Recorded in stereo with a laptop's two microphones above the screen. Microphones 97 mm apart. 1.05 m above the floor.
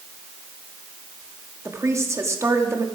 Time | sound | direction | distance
1.6 | a woman speaking | 30° right (ahead or behind) | 1.9 m